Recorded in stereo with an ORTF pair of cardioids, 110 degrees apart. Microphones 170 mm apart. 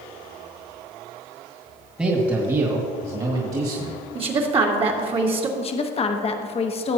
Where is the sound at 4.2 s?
35° right, 1.8 m.